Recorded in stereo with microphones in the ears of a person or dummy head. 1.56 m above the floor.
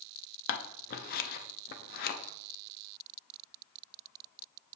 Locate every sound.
0.5 s scissors: 50° left (ahead or behind), 0.6 m